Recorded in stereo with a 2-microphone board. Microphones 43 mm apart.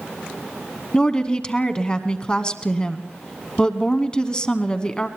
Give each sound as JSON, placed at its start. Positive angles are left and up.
{"t": 0.9, "sound": "a woman speaking", "side_deg": 25, "distance_m": 1.1}